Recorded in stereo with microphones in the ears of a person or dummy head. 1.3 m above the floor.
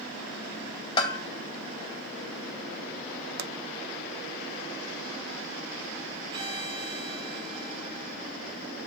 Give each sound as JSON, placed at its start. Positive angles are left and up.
{"t": 1.0, "sound": "a bell", "side_deg": 25, "distance_m": 1.5}
{"t": 3.4, "sound": "a pop", "side_deg": -50, "distance_m": 0.5}
{"t": 6.3, "sound": "a violin", "side_deg": -30, "distance_m": 1.6}